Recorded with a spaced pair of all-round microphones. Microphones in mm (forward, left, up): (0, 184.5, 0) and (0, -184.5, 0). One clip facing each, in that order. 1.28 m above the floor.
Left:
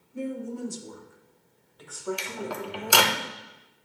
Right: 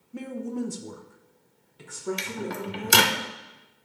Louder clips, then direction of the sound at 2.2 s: Right 2 dB; 30° right (ahead or behind).